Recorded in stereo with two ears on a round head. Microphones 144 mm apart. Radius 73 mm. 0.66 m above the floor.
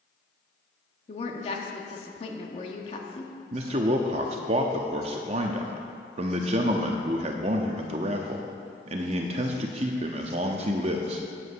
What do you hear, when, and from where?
1.1 s a woman speaking: 40° left (ahead or behind), 1.2 m
3.5 s a man speaking: 40° right (ahead or behind), 0.7 m